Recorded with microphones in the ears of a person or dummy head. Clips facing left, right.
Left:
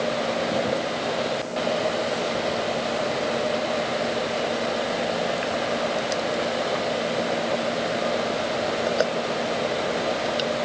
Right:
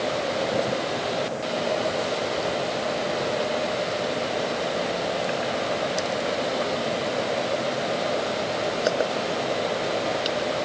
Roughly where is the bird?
No bird in this recording.